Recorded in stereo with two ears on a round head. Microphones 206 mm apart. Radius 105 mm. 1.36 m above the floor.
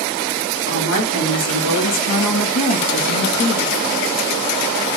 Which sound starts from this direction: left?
A woman speaking, at 0.7 s.